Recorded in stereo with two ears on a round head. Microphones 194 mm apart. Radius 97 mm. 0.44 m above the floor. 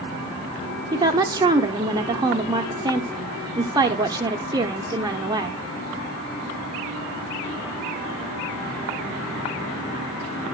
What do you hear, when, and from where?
0.9 s a woman speaking: 20° right (ahead or behind), 0.8 m